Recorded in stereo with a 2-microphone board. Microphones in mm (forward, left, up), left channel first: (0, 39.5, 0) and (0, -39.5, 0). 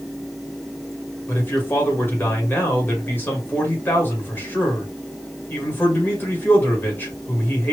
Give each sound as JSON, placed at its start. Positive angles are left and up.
{"t": 1.3, "sound": "a man speaking", "side_deg": 25, "distance_m": 2.0}